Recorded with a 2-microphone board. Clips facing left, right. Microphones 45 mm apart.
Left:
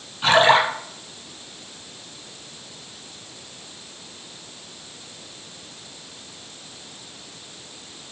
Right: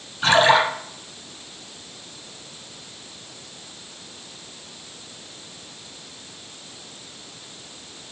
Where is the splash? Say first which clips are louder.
Even; 10° left (ahead or behind), 4.5 m.